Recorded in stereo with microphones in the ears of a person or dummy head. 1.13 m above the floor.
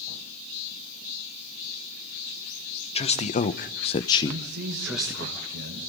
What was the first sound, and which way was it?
A man speaking, 30° left (ahead or behind).